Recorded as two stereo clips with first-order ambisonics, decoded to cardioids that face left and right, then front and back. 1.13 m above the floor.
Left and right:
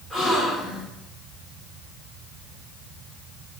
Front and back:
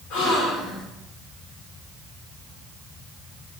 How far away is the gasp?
About 3 m.